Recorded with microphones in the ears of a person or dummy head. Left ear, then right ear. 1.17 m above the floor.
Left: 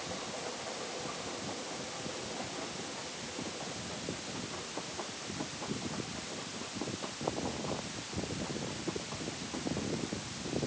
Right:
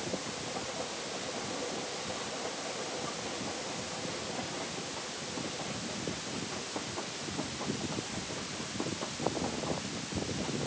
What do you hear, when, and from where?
Only background noise.